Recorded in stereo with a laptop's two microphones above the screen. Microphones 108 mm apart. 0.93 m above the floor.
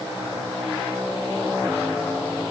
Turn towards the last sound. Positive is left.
No sound to turn to.